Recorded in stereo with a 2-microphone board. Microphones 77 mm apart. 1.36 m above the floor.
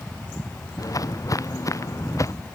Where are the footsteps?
45° left (ahead or behind); by 2.3 s 40° left (ahead or behind).